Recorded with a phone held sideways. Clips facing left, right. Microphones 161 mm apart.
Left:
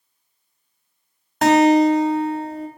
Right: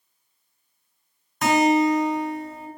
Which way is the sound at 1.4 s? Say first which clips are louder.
Left 5 dB; 65° left (ahead or behind).